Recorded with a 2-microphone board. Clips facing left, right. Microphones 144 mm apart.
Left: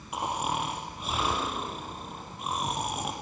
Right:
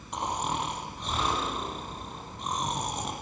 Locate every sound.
0.1 s snoring: 5° left (ahead or behind), 6.5 m